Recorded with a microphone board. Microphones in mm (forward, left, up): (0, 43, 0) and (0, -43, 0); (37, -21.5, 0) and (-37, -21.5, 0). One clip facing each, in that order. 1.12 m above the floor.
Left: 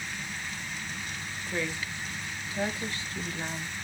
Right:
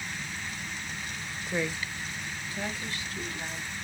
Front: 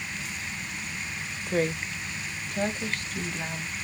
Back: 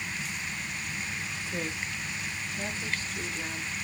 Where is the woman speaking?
20° right, 0.7 m; by 3.7 s 40° left, 1.5 m.